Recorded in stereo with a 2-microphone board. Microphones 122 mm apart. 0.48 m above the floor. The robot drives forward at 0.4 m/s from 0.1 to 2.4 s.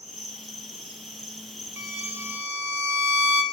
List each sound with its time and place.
0.0 s an insect: 75° left (ahead or behind), 2.5 m; by 3.5 s 65° left (ahead or behind), 2.5 m
1.8 s a violin: 25° right (ahead or behind), 0.9 m; by 3.4 s 20° right (ahead or behind), 1.1 m